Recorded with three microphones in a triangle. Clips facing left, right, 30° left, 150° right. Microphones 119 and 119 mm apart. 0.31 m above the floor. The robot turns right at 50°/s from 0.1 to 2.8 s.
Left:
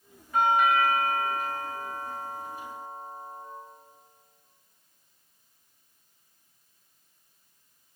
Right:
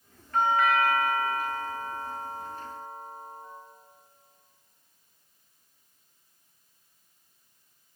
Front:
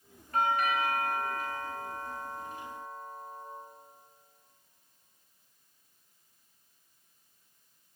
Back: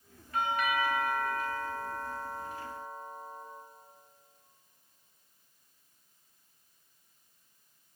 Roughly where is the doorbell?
Ahead.